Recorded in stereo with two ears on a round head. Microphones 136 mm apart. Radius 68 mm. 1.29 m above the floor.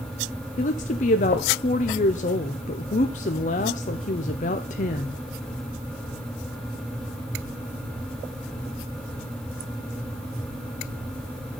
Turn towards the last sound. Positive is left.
turn(degrees=50)  # may be behind; listen again after turning